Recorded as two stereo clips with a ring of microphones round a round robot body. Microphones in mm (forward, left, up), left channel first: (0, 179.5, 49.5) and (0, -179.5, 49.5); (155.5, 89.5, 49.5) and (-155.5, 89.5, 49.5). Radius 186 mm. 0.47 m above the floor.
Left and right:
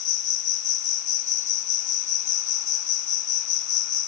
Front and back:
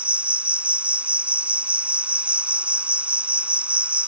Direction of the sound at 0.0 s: 95° left.